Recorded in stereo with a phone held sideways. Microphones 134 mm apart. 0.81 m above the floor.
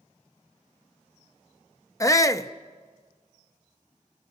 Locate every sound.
2.0 s a shout: 25° left (ahead or behind), 0.7 m